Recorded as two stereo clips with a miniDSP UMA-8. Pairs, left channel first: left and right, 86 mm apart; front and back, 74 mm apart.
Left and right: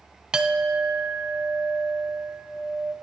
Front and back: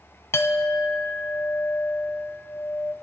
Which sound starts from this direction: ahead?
A clink, at 0.3 s.